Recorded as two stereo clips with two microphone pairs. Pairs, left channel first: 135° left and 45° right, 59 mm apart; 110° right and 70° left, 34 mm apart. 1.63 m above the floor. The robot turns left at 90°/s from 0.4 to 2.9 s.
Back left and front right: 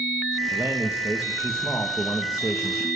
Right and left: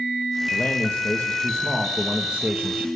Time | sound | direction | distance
0.5 | a man speaking | 65° right | 1.5 m